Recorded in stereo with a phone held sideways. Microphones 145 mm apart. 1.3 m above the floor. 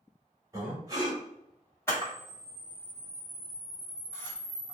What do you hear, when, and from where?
0.5 s breathing: 20° right (ahead or behind), 1.0 m
1.9 s a camera shutter: 15° left (ahead or behind), 1.3 m